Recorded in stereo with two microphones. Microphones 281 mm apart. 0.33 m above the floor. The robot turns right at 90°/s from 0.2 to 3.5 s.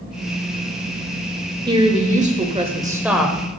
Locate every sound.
1.7 s a woman speaking: 15° right (ahead or behind), 1.1 m; by 3.3 s 5° left (ahead or behind), 1.1 m